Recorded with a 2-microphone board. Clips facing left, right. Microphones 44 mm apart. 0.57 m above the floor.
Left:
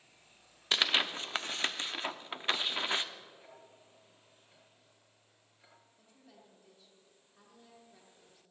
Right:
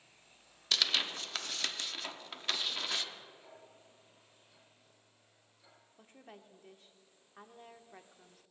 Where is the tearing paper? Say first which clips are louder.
Left 3 dB; 25° left (ahead or behind), 0.6 m.